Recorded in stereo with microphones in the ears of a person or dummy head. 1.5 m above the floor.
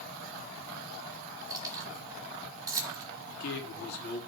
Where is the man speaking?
70° left (ahead or behind), 3 m.